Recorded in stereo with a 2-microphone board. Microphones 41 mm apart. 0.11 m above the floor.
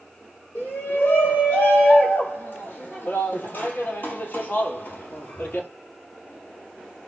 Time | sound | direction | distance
0.6 | a shout | 60° left (ahead or behind) | 4.5 m